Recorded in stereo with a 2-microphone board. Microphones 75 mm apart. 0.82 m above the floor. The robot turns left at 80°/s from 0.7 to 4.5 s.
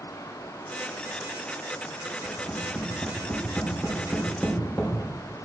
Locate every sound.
2.2 s tapping: 20° right (ahead or behind), 2.5 m; by 4.9 s 20° left (ahead or behind), 2.5 m